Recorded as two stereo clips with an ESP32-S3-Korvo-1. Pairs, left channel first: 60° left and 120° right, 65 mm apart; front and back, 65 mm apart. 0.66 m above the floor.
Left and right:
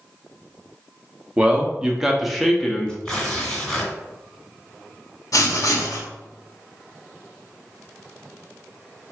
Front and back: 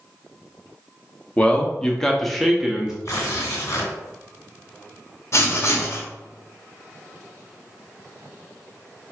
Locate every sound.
1.4 s a man speaking: 65° right, 0.9 m; by 3.0 s 115° left, 0.7 m
3.0 s tearing paper: 20° right, 2 m
5.3 s writing: 40° left, 0.9 m